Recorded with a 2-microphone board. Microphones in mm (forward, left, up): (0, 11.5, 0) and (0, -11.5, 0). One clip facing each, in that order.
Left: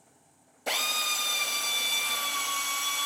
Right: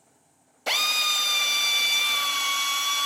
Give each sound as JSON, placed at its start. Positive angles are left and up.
{"t": 0.7, "sound": "a drill", "side_deg": -45, "distance_m": 0.9}